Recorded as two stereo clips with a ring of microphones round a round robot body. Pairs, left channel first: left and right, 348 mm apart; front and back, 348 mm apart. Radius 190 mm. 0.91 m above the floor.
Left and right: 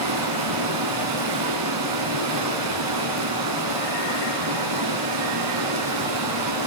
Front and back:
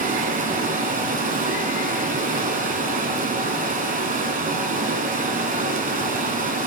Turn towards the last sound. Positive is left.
turn(degrees=-115)